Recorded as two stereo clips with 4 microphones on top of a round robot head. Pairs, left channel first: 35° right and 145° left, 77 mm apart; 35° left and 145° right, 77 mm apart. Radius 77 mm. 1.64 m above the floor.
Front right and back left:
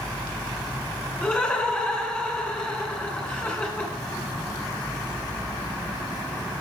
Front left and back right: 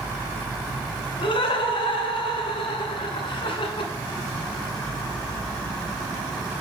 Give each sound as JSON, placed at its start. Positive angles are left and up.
{"t": 1.2, "sound": "laughter", "azimuth_deg": 35, "distance_m": 2.0}